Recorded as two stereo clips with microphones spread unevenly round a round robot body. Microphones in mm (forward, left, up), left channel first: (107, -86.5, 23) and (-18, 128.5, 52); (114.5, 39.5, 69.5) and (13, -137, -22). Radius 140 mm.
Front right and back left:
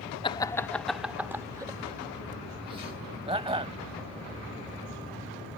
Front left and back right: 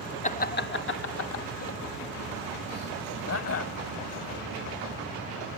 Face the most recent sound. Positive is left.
turn(degrees=50)